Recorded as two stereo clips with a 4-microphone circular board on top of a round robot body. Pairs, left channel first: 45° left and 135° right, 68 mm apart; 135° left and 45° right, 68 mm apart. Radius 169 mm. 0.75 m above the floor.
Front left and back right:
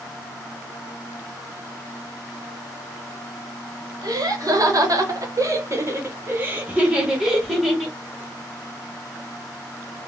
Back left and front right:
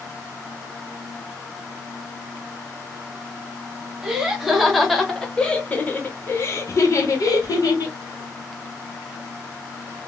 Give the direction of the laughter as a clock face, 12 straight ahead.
4 o'clock.